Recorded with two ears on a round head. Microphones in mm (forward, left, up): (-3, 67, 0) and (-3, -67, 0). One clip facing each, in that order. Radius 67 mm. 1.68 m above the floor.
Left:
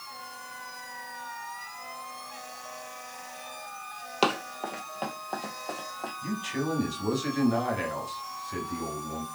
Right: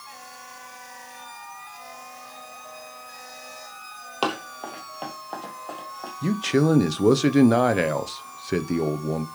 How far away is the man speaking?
About 0.8 m.